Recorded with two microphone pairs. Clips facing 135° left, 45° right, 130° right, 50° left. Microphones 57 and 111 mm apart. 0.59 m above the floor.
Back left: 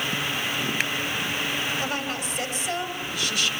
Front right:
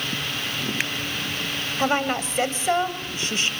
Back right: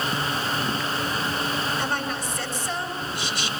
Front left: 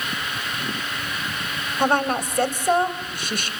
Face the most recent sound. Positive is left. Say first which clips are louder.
# front right 6 dB, front left 7 dB
turn(degrees=15)